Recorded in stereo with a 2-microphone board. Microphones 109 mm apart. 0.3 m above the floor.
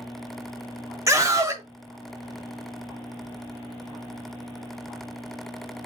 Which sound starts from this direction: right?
A scream, at 1.1 s.